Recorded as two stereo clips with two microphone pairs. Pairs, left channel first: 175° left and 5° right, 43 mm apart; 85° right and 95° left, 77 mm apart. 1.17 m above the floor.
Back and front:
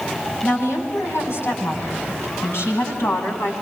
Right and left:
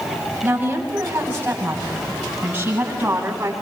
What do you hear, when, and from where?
0.4 s a woman speaking: 160° left, 9.5 m